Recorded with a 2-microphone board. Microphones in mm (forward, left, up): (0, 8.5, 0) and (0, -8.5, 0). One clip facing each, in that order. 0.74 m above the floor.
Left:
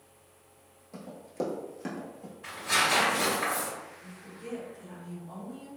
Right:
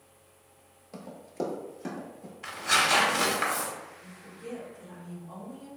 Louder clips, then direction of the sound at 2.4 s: Right 2 dB; 50° right (ahead or behind).